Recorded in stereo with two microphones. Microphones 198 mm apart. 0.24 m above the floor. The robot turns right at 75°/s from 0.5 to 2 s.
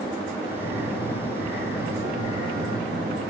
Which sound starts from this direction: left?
A phone buzzing, at 0.6 s.